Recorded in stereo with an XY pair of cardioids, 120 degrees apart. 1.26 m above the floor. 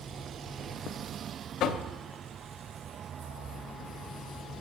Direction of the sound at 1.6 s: 70° left.